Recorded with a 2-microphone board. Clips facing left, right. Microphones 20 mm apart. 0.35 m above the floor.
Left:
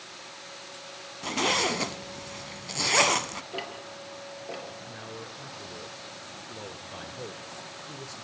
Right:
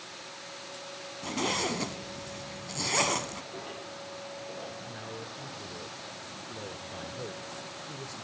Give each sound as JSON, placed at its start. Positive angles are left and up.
{"t": 1.2, "sound": "a zipper", "side_deg": 20, "distance_m": 0.7}
{"t": 3.5, "sound": "ticking", "side_deg": 65, "distance_m": 5.5}
{"t": 4.8, "sound": "a man speaking", "side_deg": 10, "distance_m": 1.3}